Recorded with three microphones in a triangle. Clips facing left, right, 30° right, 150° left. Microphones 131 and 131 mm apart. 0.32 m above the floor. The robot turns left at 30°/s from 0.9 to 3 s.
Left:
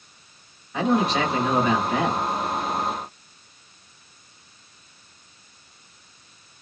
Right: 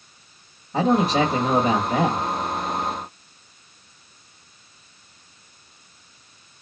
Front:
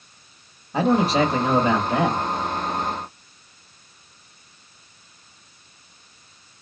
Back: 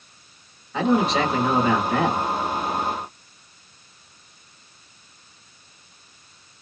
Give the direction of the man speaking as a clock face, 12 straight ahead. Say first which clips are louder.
Right 3 dB, front 1 dB; 2 o'clock.